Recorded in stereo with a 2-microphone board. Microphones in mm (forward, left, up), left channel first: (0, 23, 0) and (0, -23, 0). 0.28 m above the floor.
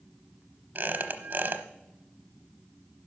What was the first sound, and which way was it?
A squeak, 45° right (ahead or behind).